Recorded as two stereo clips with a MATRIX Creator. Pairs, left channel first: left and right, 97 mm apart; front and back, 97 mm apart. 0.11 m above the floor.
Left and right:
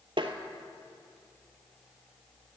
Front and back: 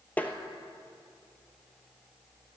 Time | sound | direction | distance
0.2 | tapping | 70° right | 1.1 m